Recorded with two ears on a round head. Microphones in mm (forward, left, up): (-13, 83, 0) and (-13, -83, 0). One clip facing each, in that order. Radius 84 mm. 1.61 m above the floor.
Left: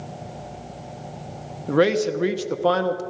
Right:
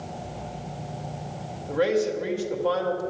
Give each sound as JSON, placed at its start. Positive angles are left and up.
{"t": 1.7, "sound": "a man speaking", "side_deg": 70, "distance_m": 1.0}